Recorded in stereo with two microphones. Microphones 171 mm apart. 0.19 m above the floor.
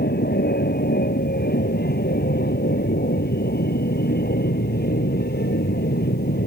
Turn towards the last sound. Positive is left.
turn(degrees=70)  # may be behind; listen again after turning